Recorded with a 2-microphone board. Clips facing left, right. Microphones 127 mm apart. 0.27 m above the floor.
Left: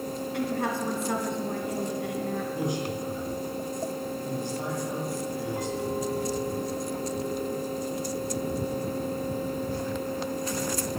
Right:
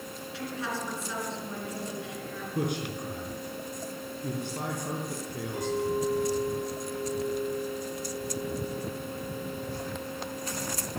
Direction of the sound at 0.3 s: 55° left (ahead or behind).